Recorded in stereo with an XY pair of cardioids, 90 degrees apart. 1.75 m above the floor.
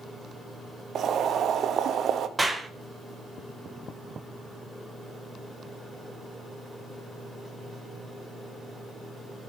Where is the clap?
10° right, 1.9 m.